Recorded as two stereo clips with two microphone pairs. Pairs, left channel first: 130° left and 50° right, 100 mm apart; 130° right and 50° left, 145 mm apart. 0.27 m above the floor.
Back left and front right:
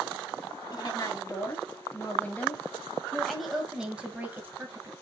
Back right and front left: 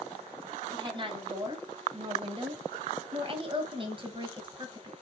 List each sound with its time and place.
0.7 s a woman speaking: 95° left, 2 m; by 4.9 s 5° left, 1.9 m